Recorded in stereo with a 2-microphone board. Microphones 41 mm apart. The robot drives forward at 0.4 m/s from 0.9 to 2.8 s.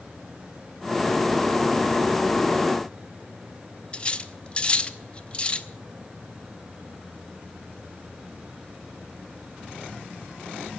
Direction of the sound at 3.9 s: 30° left (ahead or behind).